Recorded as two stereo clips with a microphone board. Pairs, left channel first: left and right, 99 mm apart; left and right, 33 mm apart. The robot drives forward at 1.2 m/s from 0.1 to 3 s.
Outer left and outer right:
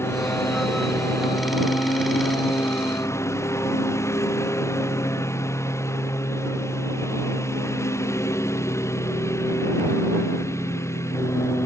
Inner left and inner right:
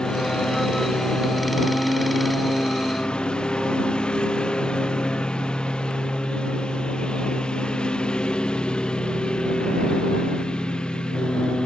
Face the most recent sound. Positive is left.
turn(degrees=30)  # may be behind; listen again after turning